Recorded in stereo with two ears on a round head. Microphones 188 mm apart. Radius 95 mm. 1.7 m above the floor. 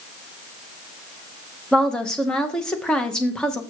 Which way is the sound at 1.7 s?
5° left (ahead or behind).